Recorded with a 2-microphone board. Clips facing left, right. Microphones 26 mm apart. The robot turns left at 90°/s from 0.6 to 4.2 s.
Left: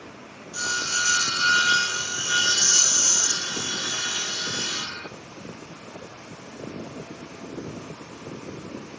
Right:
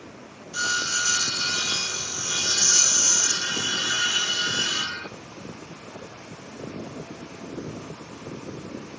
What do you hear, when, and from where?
0.5 s sawing: 145° right, 5.5 m; by 5.1 s 110° right, 5.5 m